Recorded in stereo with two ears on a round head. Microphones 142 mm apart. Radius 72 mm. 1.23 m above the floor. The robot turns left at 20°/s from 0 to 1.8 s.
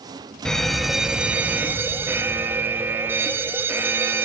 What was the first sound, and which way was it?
An alarm, 5° left (ahead or behind).